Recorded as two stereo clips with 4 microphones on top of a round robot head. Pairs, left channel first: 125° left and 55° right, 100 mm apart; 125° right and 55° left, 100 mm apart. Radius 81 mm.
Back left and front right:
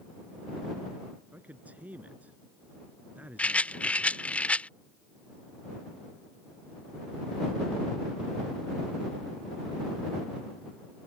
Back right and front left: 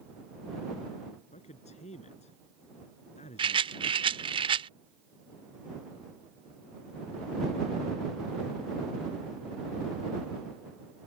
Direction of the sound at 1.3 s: 130° right.